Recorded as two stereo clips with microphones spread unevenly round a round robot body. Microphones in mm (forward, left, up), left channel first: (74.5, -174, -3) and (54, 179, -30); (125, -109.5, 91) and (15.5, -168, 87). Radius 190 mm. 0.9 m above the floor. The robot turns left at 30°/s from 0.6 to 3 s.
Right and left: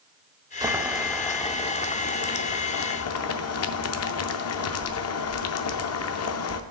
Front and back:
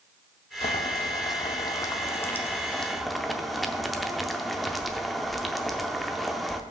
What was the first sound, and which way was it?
Boiling, 10° left.